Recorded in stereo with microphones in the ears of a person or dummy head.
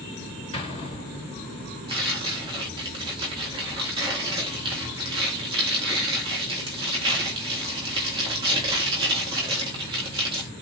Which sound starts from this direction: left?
An explosion, at 0.5 s.